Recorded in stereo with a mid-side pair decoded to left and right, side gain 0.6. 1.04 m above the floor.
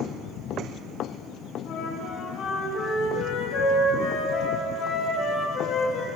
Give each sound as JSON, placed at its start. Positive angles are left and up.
{"t": 1.6, "sound": "a flute", "azimuth_deg": 65, "distance_m": 1.8}